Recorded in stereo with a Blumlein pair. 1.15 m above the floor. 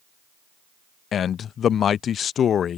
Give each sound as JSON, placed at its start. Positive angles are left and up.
{"t": 1.1, "sound": "a man speaking", "azimuth_deg": 25}